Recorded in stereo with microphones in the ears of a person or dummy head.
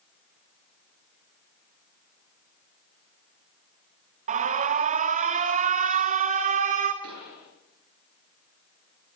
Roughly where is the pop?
Right.